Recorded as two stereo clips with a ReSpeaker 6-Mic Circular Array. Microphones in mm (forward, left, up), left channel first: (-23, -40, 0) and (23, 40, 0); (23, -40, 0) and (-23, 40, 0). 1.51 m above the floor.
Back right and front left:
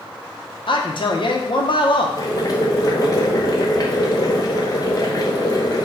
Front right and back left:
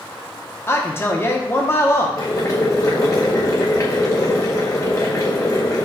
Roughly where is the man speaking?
Behind right.